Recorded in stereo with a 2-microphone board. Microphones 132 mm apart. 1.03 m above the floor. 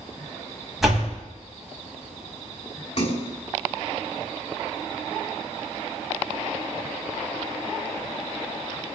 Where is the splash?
55° left (ahead or behind), 6 m.